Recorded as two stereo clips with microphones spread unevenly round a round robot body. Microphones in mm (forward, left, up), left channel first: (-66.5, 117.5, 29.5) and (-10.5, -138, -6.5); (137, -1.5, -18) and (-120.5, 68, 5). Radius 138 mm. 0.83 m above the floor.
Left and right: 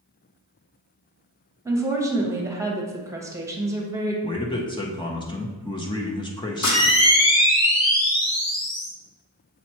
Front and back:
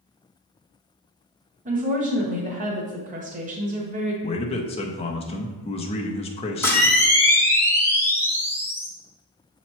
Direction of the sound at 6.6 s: 65° left.